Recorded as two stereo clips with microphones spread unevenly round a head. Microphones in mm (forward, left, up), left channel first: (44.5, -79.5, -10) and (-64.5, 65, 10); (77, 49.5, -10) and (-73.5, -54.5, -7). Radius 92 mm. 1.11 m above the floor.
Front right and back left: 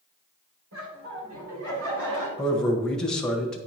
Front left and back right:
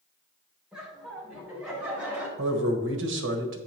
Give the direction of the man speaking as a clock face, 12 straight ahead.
5 o'clock.